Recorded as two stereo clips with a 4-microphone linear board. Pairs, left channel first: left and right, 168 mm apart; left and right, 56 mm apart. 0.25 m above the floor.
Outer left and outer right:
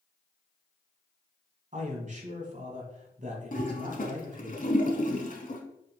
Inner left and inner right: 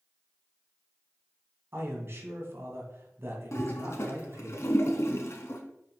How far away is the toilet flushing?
About 1.1 m.